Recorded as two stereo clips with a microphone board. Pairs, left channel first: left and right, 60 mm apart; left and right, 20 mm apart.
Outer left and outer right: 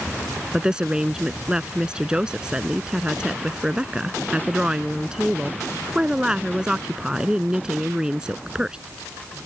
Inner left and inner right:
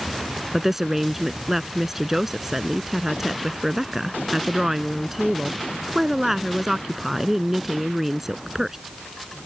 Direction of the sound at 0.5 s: 15° right (ahead or behind).